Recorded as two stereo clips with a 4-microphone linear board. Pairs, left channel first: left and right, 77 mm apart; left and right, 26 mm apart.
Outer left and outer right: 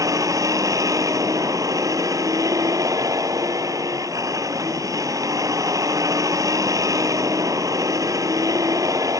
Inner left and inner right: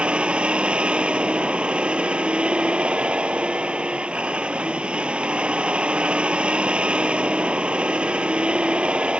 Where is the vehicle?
45° right (ahead or behind).